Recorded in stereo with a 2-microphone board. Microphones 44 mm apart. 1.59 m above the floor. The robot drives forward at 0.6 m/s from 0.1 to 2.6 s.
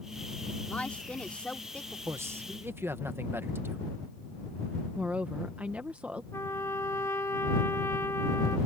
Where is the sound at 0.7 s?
25° left (ahead or behind).